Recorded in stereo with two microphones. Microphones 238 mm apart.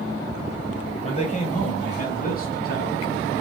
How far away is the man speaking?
About 1.7 m.